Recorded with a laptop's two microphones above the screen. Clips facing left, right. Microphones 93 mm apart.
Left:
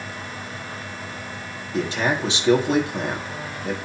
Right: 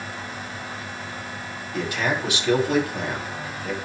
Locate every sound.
0.0 s a fan: 5° right (ahead or behind), 5 m
1.7 s a man speaking: 25° left (ahead or behind), 2.5 m